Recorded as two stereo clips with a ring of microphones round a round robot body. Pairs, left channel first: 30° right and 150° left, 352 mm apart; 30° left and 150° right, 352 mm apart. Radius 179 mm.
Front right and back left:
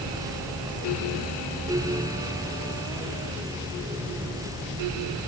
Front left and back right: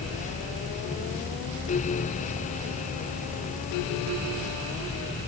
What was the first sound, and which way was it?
Only background noise.